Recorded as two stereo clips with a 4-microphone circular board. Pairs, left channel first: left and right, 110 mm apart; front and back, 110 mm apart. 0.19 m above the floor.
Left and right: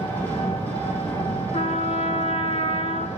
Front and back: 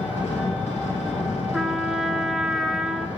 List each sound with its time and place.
0.0 s an engine running: 15° left, 3 m
1.5 s a trumpet: 95° left, 0.6 m